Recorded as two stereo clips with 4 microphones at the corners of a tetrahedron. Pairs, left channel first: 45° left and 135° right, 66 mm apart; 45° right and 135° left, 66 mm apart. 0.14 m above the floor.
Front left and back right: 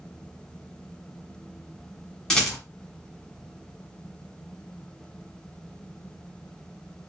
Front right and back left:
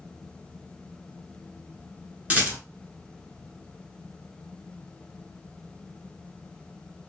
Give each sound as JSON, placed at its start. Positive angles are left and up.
{"t": 2.3, "sound": "a rattle", "azimuth_deg": 110, "distance_m": 1.1}